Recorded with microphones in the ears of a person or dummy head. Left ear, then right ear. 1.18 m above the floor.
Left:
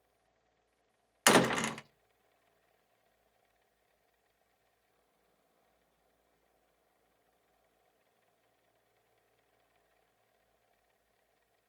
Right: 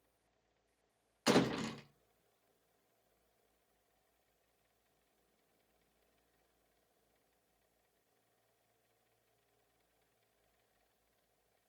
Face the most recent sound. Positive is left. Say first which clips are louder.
# left 7 dB
turn(degrees=40)  # may be behind; listen again after turning